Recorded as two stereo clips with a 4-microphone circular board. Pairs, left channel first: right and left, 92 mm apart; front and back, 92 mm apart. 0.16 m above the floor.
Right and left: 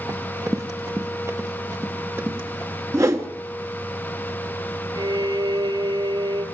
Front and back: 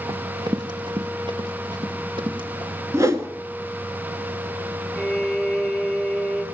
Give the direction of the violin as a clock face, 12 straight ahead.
9 o'clock.